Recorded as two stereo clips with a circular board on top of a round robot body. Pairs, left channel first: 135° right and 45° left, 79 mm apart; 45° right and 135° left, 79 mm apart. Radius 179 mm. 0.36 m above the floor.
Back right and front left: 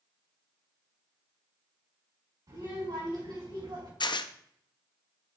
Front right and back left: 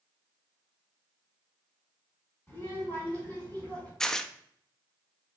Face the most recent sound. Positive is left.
turn(degrees=-130)